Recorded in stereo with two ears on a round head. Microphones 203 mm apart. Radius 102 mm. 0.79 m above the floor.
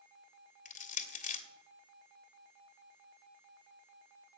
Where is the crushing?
40° left (ahead or behind), 1.5 m.